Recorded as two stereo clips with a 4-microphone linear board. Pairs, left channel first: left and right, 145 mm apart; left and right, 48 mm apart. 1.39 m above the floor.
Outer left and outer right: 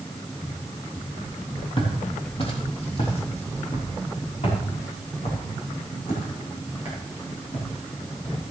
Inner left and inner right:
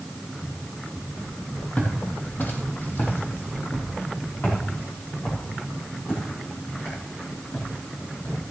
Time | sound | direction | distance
1.8 | footsteps | 35° left (ahead or behind) | 3 m